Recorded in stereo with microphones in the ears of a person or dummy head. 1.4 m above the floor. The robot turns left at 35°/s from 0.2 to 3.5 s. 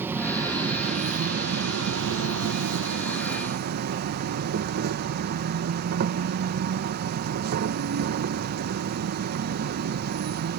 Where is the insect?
10° right; by 10.6 s 125° right.